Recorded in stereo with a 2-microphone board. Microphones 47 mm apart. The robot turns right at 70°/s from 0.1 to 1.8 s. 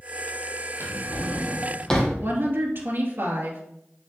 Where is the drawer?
55° right (ahead or behind), 2 m; by 2.1 s 15° left (ahead or behind), 2 m.